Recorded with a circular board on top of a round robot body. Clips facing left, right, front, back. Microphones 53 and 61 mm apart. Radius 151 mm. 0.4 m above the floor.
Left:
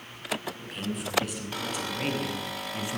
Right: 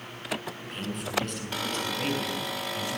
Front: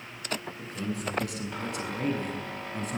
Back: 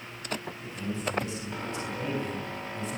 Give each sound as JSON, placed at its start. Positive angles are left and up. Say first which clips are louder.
{"t": 0.6, "sound": "a man speaking", "louder": "left 1 dB, even", "azimuth_deg": 0, "distance_m": 8.0}